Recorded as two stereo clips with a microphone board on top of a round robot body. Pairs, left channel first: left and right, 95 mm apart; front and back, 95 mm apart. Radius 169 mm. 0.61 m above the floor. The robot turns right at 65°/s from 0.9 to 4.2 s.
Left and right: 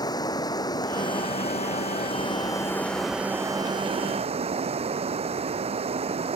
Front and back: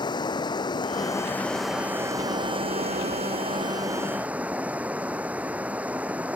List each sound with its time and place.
0.0 s running water: 40° left; by 6.4 s 105° right